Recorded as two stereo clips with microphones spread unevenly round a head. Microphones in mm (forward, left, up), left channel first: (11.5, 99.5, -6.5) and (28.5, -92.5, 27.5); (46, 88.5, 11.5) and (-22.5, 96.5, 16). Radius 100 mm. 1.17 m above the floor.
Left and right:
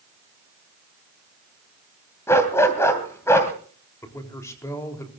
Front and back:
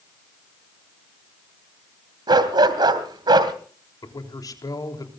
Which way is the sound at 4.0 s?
20° left.